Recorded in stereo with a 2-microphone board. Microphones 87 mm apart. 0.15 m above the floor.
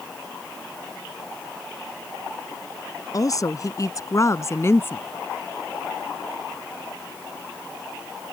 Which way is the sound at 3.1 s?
45° left (ahead or behind).